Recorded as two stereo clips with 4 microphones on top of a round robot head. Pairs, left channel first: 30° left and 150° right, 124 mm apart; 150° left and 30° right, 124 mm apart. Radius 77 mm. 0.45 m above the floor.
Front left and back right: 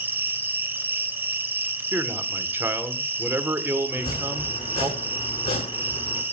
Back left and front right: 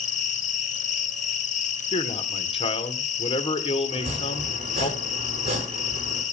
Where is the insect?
140° left, 1.3 m.